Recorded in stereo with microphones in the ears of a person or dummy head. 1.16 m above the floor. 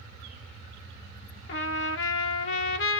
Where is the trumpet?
65° left (ahead or behind), 0.8 m.